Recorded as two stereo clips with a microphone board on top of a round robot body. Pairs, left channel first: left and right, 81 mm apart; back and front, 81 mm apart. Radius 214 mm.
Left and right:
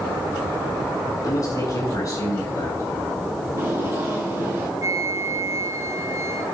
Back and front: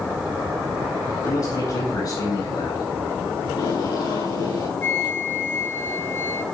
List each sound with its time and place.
1.2 s a man speaking: 140° left, 6 m; by 2.8 s 155° left, 6.5 m
3.5 s tape being pulled: 155° right, 6 m
4.8 s a flute: 125° right, 1.4 m